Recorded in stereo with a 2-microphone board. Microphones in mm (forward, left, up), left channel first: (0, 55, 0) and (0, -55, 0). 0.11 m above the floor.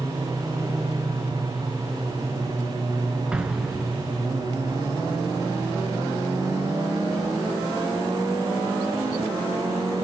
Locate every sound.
3.3 s an explosion: 10° right (ahead or behind), 0.9 m